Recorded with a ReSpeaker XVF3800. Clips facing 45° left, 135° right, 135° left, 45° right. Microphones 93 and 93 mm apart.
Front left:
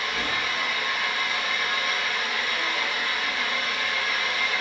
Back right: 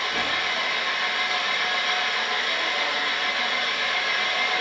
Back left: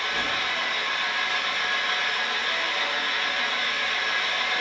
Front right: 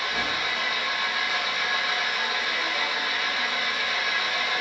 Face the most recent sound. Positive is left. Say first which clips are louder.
# back right 2 dB, even
turn(degrees=-130)